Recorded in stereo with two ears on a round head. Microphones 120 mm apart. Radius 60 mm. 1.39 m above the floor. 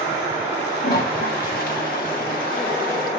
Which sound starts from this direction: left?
A toilet flushing, at 0.8 s.